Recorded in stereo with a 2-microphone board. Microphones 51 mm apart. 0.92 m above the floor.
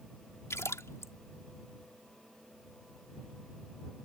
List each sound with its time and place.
0.5 s a splash: 70° left (ahead or behind)